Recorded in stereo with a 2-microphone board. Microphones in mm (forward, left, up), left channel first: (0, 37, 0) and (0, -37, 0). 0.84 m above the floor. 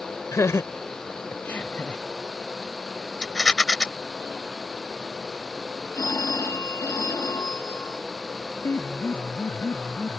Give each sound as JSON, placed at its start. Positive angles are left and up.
{"t": 0.3, "sound": "laughter", "side_deg": 45}
{"t": 3.2, "sound": "a rattle", "side_deg": 10}
{"t": 5.9, "sound": "a phone ringing", "side_deg": 45}
{"t": 8.6, "sound": "a piano", "side_deg": 40}